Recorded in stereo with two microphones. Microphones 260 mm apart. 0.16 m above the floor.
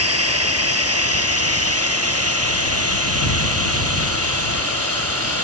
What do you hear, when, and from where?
0.0 s a drone: 65° right (ahead or behind); by 5.4 s 60° right (ahead or behind)